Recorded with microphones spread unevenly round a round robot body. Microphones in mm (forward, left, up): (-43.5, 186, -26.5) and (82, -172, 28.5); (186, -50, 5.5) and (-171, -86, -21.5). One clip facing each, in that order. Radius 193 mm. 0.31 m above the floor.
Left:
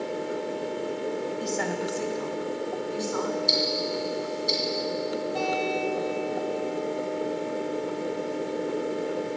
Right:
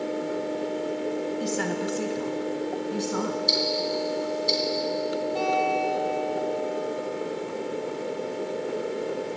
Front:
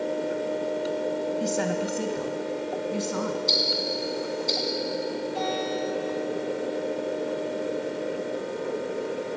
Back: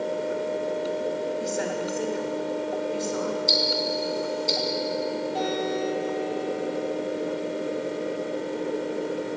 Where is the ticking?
125° right, 3 m.